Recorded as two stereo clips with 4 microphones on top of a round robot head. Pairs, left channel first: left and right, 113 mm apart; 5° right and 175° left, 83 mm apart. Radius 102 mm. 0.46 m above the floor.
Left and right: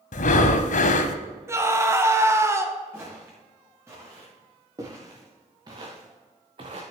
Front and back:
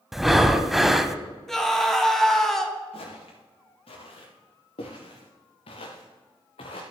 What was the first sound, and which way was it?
Breathing, 90° left.